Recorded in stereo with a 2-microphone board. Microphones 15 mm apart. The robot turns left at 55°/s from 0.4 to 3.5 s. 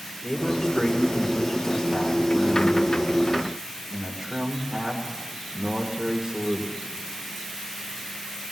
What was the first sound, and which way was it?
A man speaking, 150° left.